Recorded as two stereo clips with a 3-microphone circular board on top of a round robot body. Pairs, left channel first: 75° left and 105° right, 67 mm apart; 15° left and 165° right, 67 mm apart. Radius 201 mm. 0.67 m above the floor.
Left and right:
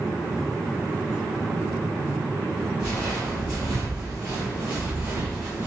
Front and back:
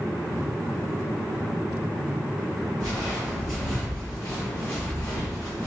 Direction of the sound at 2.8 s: 160° left.